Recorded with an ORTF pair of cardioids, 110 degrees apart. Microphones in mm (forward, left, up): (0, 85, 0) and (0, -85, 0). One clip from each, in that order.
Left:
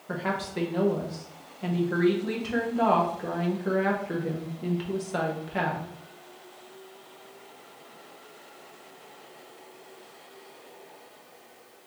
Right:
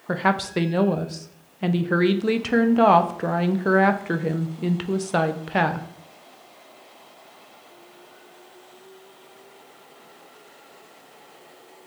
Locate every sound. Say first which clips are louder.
0.1 s a woman speaking: right 8 dB; 45° right, 0.5 m